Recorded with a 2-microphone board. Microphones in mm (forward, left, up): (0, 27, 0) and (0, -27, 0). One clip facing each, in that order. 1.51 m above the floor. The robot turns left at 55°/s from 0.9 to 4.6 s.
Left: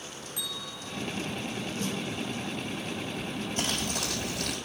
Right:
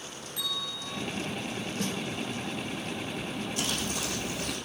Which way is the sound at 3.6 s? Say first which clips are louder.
Left 2 dB; 140° left.